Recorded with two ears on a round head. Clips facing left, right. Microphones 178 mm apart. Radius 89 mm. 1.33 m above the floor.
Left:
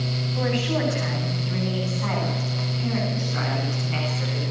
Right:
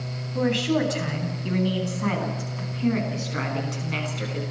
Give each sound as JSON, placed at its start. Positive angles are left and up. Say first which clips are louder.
{"t": 0.3, "sound": "a woman speaking", "louder": "right 3 dB", "side_deg": -50, "distance_m": 9.5}